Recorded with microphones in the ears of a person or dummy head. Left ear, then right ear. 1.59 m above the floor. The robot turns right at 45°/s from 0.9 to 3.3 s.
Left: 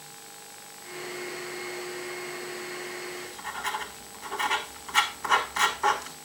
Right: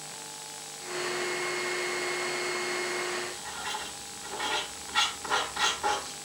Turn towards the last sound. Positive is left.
turn(degrees=35)  # may be behind; listen again after turning